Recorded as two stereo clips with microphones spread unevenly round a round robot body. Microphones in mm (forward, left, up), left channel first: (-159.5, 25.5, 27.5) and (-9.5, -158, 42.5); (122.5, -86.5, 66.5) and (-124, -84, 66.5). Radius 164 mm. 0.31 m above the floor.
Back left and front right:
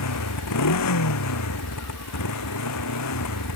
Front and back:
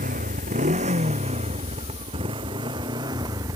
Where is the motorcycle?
115° left; by 3.6 s 100° left.